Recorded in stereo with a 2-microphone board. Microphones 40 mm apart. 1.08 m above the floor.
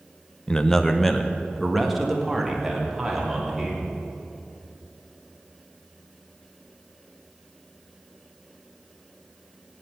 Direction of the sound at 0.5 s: 20° left (ahead or behind).